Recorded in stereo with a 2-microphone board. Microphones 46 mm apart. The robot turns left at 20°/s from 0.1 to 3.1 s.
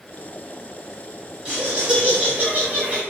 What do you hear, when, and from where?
1.4 s laughter: 30° right, 1.8 m; by 3.0 s 60° right, 1.8 m